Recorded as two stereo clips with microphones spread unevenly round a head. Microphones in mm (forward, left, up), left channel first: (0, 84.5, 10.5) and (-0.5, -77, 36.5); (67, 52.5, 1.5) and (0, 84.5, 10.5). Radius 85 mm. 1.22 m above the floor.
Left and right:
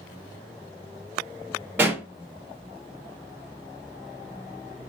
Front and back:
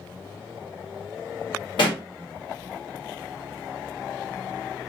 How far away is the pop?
About 1.6 m.